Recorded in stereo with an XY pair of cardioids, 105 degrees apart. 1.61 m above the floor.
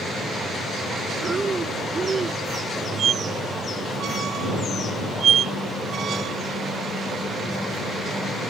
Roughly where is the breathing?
Ahead right.